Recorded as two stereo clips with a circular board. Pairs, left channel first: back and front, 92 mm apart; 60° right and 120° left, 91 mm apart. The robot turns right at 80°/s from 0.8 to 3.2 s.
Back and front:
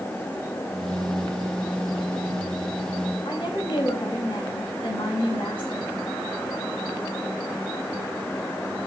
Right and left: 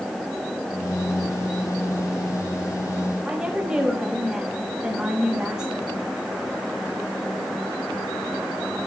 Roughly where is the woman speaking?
Behind.